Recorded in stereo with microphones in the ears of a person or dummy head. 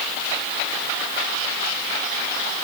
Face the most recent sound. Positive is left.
No sound to turn to.